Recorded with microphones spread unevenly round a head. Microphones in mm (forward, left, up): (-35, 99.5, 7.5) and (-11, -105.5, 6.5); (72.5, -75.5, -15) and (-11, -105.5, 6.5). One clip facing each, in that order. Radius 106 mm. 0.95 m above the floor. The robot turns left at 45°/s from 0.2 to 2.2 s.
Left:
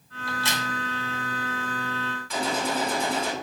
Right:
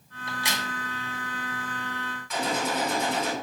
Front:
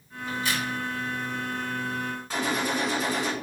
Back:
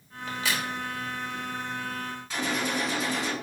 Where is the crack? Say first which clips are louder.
Left 3 dB, front 1 dB; 150° right, 1.1 m; by 0.7 s 170° right, 1.1 m.